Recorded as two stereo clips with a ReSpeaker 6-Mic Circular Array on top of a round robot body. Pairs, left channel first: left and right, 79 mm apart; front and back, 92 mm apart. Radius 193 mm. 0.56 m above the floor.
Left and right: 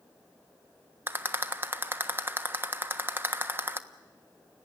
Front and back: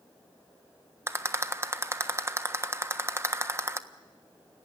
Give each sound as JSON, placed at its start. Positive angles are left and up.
{"t": 1.1, "sound": "a rattle", "azimuth_deg": -135, "distance_m": 1.5}